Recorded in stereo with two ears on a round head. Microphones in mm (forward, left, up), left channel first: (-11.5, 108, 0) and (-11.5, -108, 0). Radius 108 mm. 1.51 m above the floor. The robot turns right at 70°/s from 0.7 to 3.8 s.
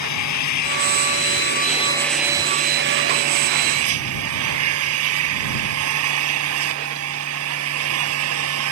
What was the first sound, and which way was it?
An engine running, 80° left.